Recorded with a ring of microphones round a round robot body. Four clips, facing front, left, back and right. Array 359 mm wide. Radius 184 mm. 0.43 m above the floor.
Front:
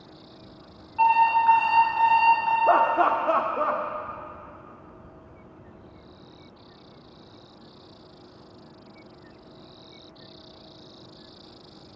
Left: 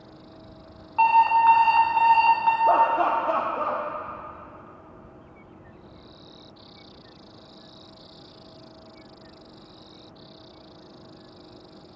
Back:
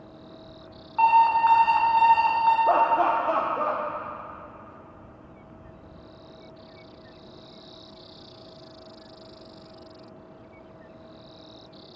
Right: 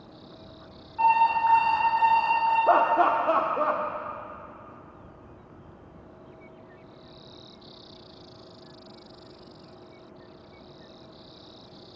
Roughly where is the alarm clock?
Behind left.